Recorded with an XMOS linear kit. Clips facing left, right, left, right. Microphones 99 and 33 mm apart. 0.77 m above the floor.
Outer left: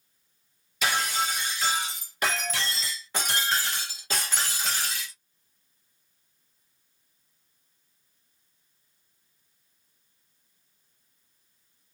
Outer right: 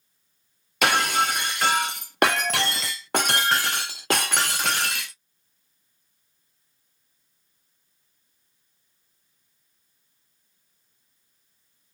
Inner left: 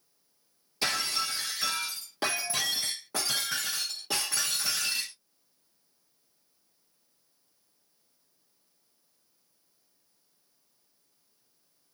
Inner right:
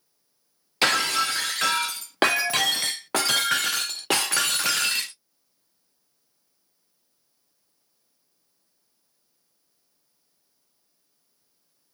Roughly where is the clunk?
I don't hear a clunk.